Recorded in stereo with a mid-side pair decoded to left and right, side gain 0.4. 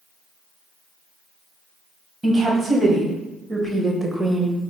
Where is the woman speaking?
40° right, 1.8 m; by 4.6 s 5° left, 0.7 m.